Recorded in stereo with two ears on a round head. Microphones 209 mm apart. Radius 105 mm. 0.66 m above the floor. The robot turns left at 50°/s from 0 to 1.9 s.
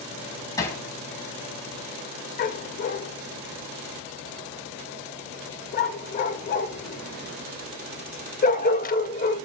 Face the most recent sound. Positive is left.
turn(degrees=35)  # may be behind; listen again after turning